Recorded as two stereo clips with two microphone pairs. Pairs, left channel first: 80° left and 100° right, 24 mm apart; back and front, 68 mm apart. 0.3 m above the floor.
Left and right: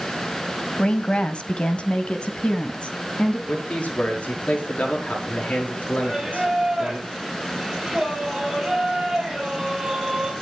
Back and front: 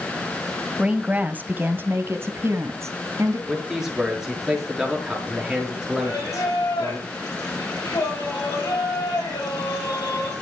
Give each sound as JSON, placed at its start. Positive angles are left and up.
{"t": 0.8, "sound": "a woman speaking", "azimuth_deg": 75, "distance_m": 1.2}
{"t": 3.5, "sound": "a man speaking", "azimuth_deg": 85, "distance_m": 6.0}
{"t": 6.0, "sound": "singing", "azimuth_deg": -170, "distance_m": 9.0}